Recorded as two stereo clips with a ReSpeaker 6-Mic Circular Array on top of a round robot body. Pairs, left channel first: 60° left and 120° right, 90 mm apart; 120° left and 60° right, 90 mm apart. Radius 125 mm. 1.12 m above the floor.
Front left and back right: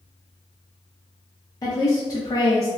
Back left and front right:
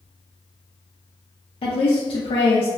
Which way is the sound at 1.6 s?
105° left.